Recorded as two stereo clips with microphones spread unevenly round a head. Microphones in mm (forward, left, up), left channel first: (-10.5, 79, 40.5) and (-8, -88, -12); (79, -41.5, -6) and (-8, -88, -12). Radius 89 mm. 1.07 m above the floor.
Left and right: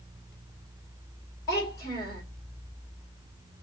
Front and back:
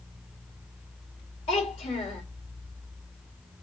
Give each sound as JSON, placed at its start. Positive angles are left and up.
{"t": 1.5, "sound": "a child speaking", "azimuth_deg": 15, "distance_m": 2.0}